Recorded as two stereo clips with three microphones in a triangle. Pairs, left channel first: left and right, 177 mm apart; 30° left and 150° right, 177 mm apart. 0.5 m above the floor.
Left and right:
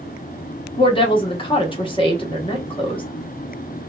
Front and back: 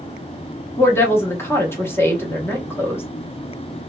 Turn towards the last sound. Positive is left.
turn(degrees=90)